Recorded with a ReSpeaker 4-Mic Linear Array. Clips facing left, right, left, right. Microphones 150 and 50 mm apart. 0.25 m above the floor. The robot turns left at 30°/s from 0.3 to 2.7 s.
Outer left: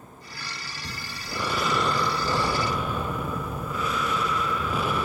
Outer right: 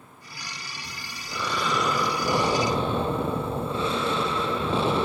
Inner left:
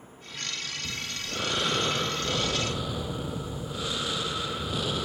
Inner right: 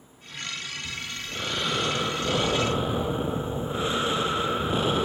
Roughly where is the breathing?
Ahead left.